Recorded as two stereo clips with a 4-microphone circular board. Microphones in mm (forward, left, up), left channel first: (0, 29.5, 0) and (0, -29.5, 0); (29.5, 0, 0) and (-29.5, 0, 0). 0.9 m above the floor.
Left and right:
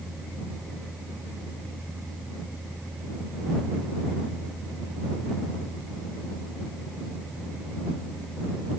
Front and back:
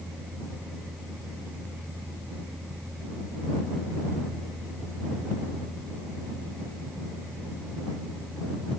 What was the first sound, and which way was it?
Only background noise.